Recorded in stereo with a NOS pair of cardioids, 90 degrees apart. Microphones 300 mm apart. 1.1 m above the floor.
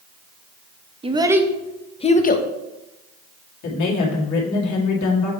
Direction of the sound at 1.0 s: 20° right.